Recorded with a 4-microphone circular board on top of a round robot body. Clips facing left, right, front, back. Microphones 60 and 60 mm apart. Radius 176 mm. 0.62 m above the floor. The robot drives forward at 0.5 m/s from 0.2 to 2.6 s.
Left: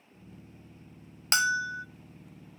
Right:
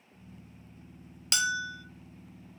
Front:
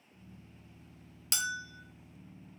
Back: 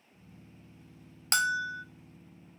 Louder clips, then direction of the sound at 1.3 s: Left 4 dB, back 9 dB; 140° left.